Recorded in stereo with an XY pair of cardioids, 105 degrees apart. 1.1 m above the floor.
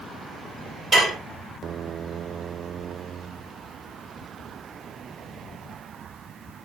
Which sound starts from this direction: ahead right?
Dishes clattering, at 0.9 s.